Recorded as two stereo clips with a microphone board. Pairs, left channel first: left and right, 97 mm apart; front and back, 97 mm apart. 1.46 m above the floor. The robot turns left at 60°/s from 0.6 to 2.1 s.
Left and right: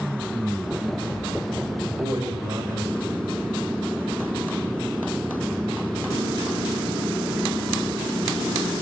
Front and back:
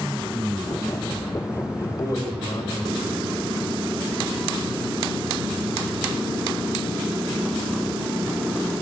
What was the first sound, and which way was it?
A man speaking, 35° right.